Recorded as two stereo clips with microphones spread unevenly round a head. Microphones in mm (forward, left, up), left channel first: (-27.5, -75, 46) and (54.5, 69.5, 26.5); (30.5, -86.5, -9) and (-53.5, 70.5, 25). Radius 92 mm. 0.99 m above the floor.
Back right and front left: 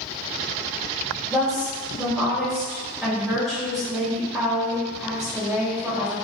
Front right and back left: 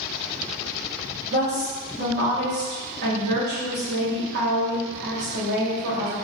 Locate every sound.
1.3 s a woman speaking: 150° left, 1.9 m